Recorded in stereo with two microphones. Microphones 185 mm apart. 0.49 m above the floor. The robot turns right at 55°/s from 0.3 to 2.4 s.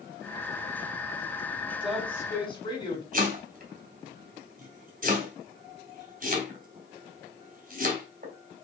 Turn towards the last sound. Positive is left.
turn(degrees=-45)  # may be behind; listen again after turning